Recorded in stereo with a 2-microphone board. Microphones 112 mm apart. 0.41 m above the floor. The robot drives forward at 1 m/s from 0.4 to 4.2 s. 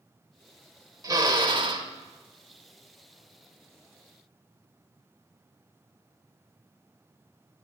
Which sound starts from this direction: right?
A drill, at 1.0 s.